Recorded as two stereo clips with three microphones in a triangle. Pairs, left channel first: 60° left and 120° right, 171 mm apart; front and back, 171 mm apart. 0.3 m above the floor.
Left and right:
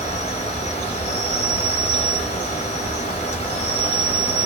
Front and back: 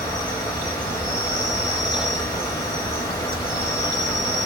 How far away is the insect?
About 1.0 m.